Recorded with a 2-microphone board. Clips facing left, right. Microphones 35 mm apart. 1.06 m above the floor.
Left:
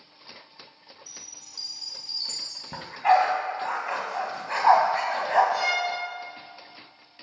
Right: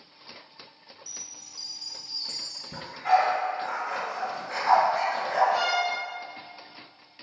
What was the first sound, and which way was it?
A chime, 55° left (ahead or behind).